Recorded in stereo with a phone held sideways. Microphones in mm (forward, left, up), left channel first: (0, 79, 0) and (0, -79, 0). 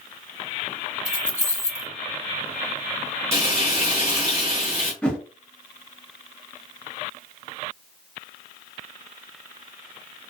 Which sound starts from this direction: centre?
A whoosh, at 5.0 s.